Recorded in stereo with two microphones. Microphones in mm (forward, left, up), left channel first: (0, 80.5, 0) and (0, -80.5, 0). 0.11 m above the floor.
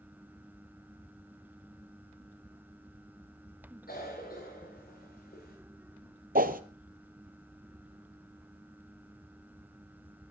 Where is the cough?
70° left (ahead or behind), 9.5 m.